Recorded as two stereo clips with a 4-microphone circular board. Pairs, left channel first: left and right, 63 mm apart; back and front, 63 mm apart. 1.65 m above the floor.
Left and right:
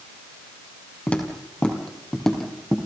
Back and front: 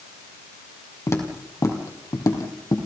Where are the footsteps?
150° left, 3 m; by 2.8 s 175° left, 3.5 m.